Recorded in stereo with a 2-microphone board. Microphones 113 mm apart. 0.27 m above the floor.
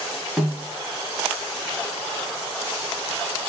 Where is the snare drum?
Centre (ahead or behind), 1.3 m.